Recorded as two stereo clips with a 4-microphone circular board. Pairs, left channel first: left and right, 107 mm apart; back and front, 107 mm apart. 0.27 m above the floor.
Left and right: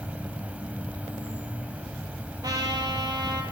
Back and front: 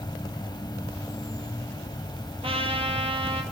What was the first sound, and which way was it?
An insect, 160° right.